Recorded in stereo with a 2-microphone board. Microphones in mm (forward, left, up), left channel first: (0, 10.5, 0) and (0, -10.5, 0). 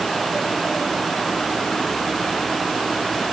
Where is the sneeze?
I don't hear a sneeze.